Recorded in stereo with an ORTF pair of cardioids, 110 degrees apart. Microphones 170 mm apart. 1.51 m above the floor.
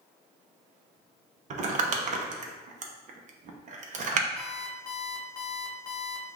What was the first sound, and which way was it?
Crumpling, 50° right.